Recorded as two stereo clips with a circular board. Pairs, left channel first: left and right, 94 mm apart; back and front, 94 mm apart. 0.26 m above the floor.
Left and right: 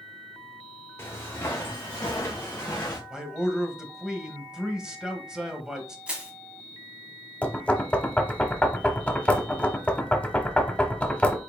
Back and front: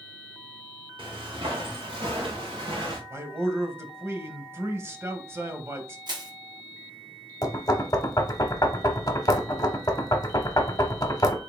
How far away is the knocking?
About 0.9 m.